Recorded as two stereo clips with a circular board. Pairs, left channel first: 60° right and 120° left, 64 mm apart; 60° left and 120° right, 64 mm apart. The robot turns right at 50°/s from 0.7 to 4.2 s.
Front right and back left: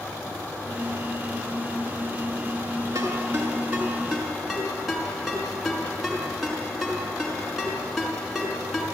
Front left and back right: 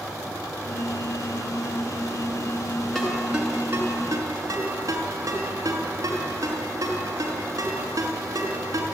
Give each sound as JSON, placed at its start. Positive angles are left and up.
{"t": 3.0, "sound": "a ringtone", "azimuth_deg": 145, "distance_m": 5.0}